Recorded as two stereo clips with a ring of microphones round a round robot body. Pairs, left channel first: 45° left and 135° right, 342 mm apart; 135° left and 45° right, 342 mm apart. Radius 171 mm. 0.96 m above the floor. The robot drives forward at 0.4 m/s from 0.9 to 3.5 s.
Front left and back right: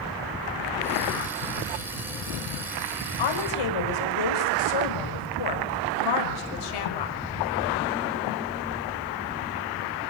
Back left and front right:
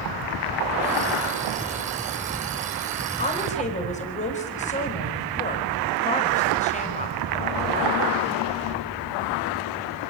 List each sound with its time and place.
3.2 s a woman speaking: 65° left, 5 m